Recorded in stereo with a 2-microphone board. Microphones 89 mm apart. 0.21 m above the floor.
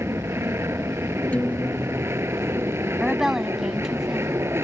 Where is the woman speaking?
5° right (ahead or behind).